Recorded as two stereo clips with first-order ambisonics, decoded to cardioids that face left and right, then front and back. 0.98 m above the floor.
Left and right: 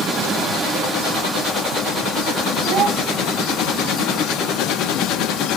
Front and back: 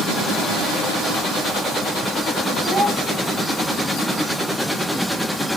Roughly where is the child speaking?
Right.